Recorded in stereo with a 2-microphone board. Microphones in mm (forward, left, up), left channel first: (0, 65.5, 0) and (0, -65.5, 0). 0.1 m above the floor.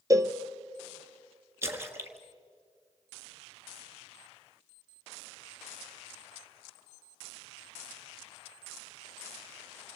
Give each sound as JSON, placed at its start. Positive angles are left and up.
{"t": 0.1, "sound": "a cowbell", "side_deg": -25, "distance_m": 1.0}
{"t": 1.6, "sound": "a splash", "side_deg": -20, "distance_m": 1.8}